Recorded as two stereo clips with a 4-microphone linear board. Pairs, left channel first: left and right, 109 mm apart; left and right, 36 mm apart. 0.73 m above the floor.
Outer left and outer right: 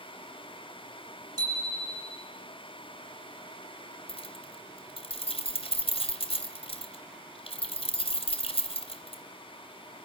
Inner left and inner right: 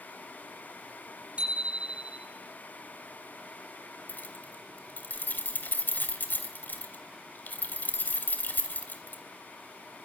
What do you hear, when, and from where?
1.4 s a bicycle bell: 35° right (ahead or behind), 6.5 m
4.1 s keys jangling: 65° left (ahead or behind), 3 m